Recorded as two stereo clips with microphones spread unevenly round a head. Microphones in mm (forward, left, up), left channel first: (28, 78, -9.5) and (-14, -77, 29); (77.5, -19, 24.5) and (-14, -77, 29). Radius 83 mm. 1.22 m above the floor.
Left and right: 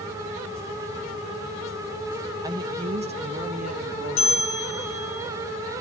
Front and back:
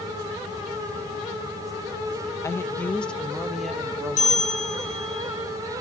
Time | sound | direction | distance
2.4 | a woman speaking | 35° right | 1.1 m
4.2 | a bell | 20° left | 8 m